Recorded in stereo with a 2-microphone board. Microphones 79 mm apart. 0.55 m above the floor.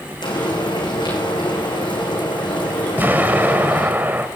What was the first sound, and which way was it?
Frying, 75° left (ahead or behind).